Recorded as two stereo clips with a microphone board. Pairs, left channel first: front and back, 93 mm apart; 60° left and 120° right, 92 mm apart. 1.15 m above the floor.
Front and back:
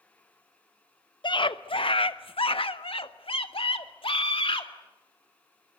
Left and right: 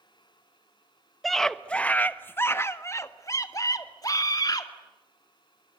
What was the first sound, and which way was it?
A scream, 30° right.